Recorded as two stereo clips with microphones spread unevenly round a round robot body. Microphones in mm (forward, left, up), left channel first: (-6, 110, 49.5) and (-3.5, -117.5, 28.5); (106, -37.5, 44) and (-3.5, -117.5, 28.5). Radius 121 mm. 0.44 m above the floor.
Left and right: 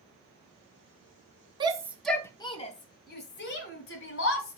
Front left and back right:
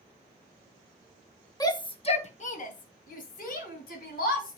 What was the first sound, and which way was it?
A shout, 25° right.